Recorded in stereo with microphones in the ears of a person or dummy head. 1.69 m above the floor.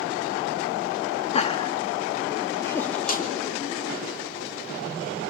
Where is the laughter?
35° left (ahead or behind), 2.5 m; by 3.3 s 5° left (ahead or behind), 3 m.